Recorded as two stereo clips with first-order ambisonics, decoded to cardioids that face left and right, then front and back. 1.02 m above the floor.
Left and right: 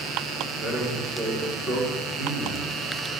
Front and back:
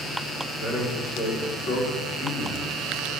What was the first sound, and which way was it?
A man speaking, 5° left.